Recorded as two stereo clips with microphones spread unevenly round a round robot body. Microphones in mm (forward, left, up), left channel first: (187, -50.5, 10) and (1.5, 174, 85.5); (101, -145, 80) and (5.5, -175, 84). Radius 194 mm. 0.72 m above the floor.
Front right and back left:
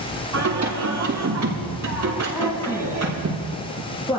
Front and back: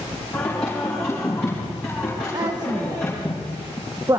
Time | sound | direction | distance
0.3 | singing | 100° left | 5.5 m
2.3 | a woman speaking | 115° right | 1.3 m